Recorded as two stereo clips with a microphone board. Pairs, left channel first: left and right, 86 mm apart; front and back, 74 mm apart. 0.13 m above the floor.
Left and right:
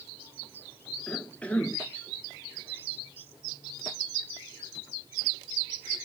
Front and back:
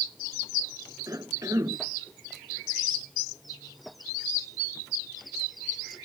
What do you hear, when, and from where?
1.1 s a cough: 160° left